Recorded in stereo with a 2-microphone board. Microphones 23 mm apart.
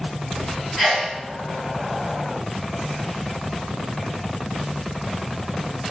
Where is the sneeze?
10° left (ahead or behind), 1.8 m.